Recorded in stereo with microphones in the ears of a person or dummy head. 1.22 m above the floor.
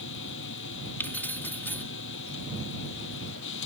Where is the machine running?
70° left (ahead or behind).